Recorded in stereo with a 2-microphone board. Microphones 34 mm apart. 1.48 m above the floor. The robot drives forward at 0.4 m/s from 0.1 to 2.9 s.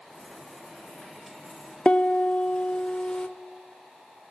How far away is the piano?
About 0.6 m.